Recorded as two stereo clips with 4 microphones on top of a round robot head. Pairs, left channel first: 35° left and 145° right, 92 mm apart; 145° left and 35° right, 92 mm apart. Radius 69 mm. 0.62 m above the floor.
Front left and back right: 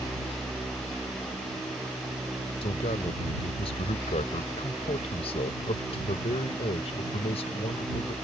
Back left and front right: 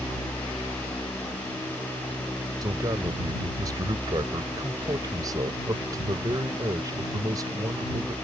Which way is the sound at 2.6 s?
15° left.